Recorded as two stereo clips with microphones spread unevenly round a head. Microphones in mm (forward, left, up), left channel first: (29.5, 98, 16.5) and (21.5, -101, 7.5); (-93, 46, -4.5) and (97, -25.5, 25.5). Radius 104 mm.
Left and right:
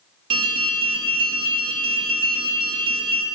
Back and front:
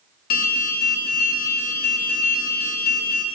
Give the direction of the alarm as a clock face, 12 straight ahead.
5 o'clock.